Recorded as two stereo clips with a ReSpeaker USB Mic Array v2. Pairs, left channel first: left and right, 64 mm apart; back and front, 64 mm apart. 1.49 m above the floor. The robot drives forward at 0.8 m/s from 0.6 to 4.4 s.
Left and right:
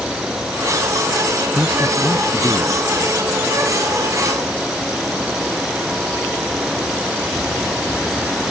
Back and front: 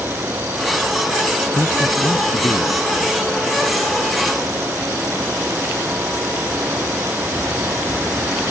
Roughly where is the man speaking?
Behind.